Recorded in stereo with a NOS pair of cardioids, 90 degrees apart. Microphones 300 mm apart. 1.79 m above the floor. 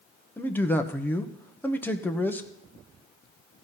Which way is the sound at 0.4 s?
5° left.